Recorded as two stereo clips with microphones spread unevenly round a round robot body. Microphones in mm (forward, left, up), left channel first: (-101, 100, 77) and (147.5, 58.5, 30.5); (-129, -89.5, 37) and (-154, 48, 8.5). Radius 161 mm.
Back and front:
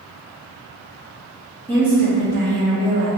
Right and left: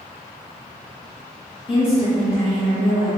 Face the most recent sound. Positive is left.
turn(degrees=-10)